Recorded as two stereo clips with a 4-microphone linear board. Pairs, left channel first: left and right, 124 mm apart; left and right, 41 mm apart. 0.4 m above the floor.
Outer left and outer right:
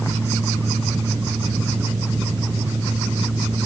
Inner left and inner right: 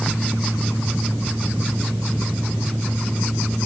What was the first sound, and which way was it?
Only background noise.